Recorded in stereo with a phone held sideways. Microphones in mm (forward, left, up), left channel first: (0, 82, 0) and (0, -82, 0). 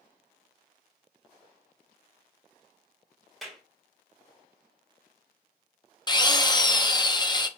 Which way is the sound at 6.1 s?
25° left (ahead or behind).